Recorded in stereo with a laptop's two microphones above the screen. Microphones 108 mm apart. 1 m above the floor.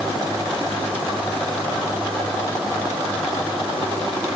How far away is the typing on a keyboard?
I don't hear typing on a keyboard.